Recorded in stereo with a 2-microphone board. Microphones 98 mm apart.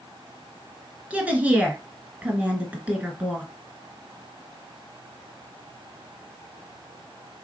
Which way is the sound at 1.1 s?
15° right (ahead or behind).